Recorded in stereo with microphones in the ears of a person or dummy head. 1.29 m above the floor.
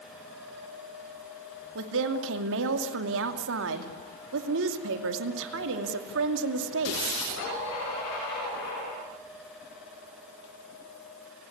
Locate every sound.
1.8 s a woman speaking: 70° right (ahead or behind), 2.5 m